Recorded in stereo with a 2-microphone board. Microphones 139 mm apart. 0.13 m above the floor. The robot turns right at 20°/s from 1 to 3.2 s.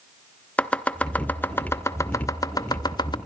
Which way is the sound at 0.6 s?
10° left (ahead or behind).